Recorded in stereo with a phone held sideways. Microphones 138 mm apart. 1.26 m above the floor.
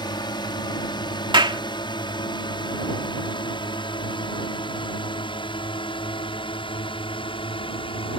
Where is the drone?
30° left (ahead or behind); by 8.2 s 40° left (ahead or behind).